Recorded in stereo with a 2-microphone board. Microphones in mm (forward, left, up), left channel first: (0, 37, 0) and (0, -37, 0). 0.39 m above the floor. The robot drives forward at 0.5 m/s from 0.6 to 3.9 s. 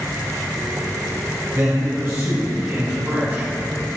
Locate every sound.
1.5 s a man speaking: 45° right (ahead or behind), 1.8 m; by 3.5 s 30° right (ahead or behind), 2.5 m